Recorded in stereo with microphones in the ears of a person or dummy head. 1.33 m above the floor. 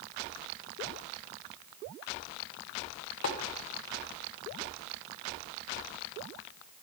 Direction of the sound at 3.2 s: 65° left (ahead or behind).